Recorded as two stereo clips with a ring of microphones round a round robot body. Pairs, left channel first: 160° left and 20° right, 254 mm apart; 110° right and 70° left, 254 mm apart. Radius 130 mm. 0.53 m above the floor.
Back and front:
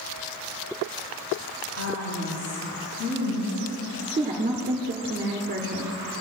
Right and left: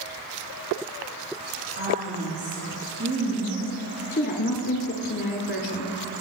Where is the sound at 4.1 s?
80° right, 1.4 m.